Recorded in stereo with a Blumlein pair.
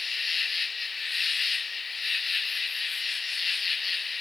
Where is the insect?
15° left.